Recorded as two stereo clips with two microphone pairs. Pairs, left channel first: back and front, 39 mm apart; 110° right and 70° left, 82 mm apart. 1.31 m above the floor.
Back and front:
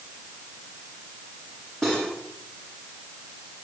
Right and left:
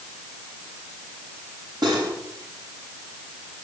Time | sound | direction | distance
1.8 | cutlery clinking | 100° left | 6.5 m